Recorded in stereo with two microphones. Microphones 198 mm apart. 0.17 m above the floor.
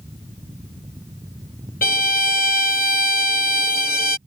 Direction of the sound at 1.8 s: 50° left (ahead or behind).